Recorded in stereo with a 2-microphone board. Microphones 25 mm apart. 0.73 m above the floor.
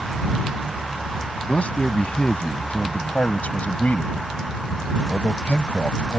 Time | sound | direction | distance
1.4 | a man speaking | 60° left (ahead or behind) | ?